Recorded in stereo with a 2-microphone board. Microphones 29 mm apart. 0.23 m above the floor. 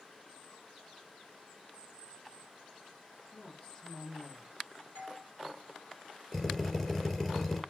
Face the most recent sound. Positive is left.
turn(degrees=15)  # may be behind; listen again after turning